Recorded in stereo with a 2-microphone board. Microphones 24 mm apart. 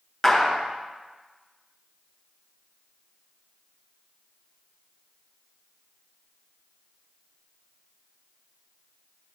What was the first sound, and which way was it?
A clap, 5° left (ahead or behind).